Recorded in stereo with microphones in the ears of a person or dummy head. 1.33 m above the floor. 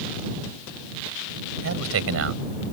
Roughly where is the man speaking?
Right.